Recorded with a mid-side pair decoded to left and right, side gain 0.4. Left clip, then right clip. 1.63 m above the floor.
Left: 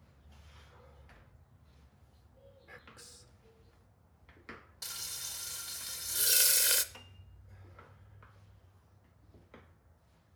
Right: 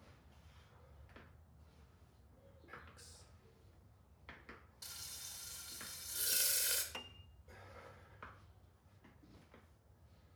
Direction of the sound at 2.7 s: 50° left.